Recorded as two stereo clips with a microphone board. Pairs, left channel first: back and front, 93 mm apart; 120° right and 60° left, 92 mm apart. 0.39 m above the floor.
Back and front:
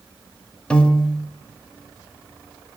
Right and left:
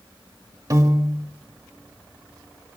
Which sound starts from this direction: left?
A piano, at 0.7 s.